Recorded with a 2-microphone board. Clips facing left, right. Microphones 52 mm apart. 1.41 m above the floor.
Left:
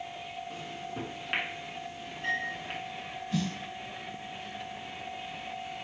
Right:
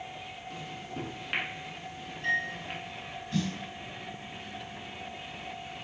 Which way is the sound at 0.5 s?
10° left (ahead or behind).